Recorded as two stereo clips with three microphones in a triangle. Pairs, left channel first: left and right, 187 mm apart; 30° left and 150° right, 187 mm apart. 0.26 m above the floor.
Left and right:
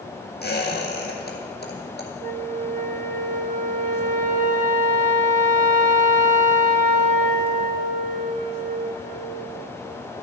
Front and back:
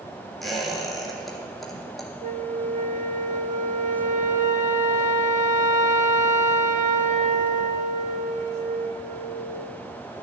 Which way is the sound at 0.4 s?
120° left.